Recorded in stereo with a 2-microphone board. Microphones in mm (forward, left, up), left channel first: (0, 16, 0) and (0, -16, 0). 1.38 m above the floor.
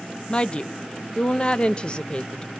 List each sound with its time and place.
0.3 s a woman speaking: 30° left (ahead or behind), 0.7 m